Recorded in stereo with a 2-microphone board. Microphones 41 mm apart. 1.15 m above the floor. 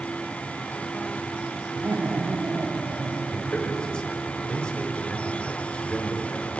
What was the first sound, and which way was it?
Laughter, 75° right (ahead or behind).